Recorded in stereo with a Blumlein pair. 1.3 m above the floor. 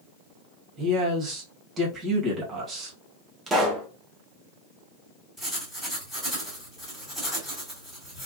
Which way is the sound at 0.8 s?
20° right.